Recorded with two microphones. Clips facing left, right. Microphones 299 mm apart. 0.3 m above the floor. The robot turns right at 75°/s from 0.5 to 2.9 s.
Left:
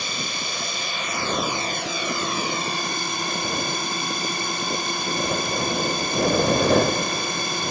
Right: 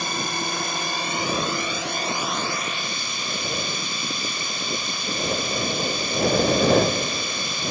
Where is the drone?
100° right; by 7.7 s 80° left.